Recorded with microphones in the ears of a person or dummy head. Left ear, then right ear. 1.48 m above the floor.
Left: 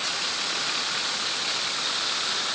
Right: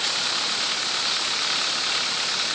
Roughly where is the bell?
I don't hear a bell.